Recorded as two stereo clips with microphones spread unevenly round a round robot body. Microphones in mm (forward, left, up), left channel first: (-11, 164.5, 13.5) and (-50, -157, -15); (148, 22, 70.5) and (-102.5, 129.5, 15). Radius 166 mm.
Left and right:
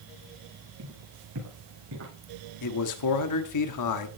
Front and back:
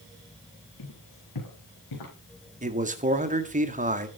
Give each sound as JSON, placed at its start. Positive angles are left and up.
{"t": 0.8, "sound": "footsteps", "azimuth_deg": -45, "distance_m": 9.0}
{"t": 2.6, "sound": "a man speaking", "azimuth_deg": 105, "distance_m": 1.7}